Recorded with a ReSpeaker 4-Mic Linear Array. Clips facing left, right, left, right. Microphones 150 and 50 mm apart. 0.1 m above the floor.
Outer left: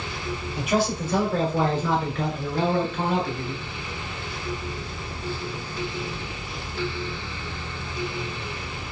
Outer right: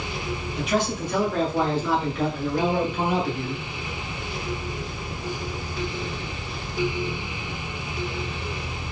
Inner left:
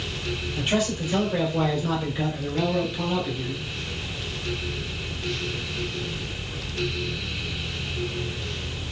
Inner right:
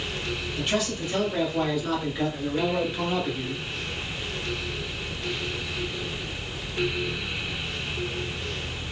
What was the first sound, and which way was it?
A man speaking, 10° left (ahead or behind).